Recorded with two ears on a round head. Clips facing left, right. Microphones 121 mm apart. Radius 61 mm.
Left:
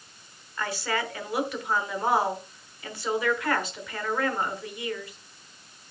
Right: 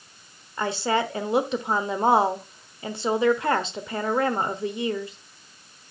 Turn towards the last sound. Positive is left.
turn(degrees=-25)  # may be behind; listen again after turning